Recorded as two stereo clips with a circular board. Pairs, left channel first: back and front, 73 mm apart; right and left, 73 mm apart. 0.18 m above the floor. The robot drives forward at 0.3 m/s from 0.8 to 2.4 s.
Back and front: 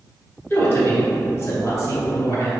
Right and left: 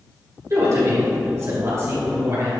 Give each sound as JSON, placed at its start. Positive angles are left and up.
{"t": 0.5, "sound": "a woman speaking", "azimuth_deg": 125, "distance_m": 1.9}